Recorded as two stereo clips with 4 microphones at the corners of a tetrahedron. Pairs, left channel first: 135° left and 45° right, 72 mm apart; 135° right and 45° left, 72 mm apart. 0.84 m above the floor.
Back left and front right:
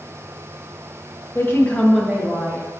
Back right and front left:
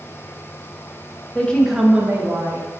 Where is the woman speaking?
165° left, 0.8 m; by 2.7 s 5° left, 1.0 m.